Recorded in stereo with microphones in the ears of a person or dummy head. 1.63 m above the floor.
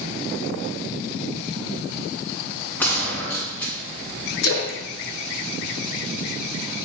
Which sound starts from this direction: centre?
A gunshot, at 2.8 s.